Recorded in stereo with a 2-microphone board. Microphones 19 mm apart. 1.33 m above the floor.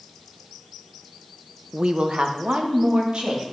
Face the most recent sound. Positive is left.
turn(degrees=-70)  # may be behind; listen again after turning